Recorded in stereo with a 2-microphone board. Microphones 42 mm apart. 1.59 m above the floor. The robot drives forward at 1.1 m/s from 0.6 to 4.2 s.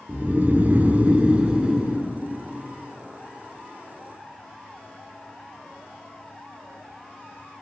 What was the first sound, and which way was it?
Snoring, 40° right (ahead or behind).